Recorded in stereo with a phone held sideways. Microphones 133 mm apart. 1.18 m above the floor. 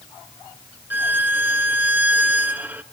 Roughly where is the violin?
Centre.